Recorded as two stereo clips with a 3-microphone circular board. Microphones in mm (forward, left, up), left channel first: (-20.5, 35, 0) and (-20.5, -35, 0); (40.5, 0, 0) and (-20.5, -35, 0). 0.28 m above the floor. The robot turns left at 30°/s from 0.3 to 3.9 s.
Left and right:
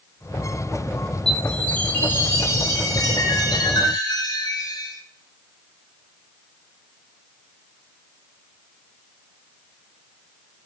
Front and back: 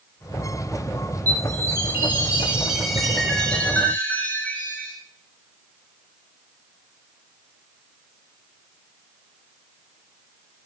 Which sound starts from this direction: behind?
A chime, at 1.3 s.